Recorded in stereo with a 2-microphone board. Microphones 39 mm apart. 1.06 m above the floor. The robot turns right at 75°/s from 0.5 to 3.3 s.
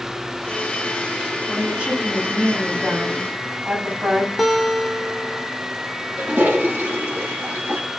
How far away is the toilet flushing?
About 3.5 m.